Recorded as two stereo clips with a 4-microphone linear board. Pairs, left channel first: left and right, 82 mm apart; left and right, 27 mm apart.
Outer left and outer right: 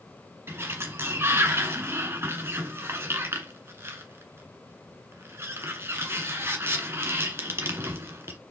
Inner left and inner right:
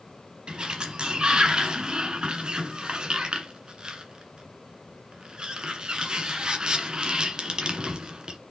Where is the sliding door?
30° right (ahead or behind), 1.5 m.